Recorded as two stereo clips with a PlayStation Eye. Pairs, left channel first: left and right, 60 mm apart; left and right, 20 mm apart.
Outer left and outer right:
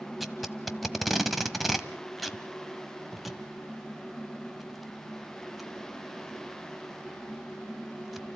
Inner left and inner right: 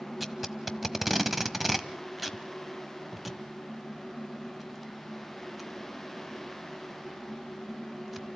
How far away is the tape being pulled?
About 1.1 m.